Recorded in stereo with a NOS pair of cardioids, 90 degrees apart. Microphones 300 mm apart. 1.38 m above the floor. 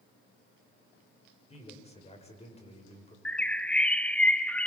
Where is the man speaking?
20° left, 6.5 m.